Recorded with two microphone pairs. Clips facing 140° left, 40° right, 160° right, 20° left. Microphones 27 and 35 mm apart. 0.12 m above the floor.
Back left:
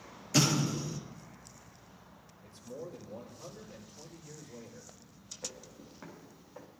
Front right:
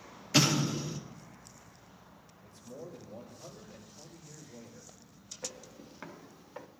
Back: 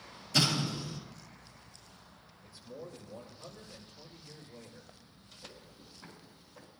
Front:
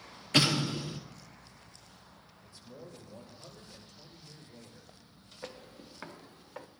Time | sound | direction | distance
0.3 | an explosion | 20° left | 1.7 m
2.4 | a man speaking | 125° left | 5.5 m
5.4 | footsteps | 30° left | 1.6 m